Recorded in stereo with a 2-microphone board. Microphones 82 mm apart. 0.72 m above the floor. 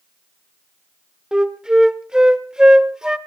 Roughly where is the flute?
Centre.